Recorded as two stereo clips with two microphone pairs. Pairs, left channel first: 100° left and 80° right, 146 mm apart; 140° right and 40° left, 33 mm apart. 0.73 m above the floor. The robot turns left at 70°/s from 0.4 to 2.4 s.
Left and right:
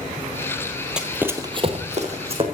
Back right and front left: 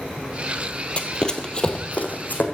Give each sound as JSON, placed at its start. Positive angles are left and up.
{"t": 1.0, "sound": "running footsteps", "azimuth_deg": -155, "distance_m": 0.9}